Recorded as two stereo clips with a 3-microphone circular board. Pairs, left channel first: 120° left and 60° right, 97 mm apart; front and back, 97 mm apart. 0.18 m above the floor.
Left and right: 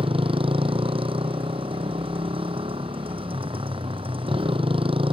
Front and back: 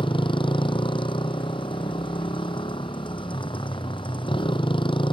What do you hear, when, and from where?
0.0 s a motorcycle: 35° right